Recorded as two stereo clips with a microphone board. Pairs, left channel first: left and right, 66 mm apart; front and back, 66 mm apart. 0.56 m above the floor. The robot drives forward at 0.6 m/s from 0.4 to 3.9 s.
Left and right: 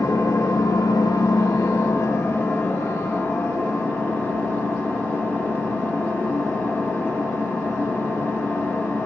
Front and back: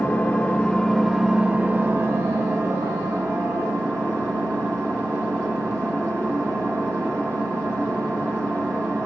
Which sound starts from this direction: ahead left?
An engine running, at 0.0 s.